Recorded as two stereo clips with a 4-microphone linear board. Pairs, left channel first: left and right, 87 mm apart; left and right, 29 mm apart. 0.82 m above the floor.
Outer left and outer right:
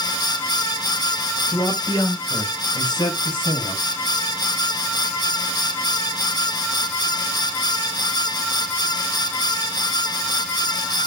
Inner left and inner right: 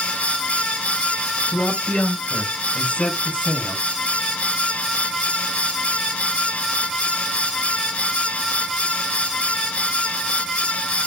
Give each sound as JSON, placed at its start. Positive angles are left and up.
{"t": 1.5, "sound": "a man speaking", "side_deg": 50, "distance_m": 4.5}